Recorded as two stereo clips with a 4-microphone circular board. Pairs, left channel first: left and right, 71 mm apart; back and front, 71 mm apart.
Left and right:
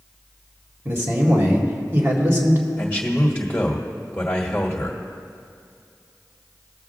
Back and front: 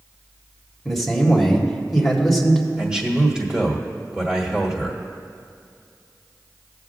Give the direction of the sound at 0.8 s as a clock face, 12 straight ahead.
3 o'clock.